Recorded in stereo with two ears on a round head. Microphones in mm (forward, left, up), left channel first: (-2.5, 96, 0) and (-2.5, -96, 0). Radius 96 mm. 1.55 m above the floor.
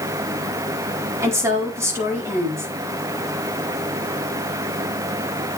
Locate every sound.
1.2 s a woman speaking: 15° right (ahead or behind), 4 m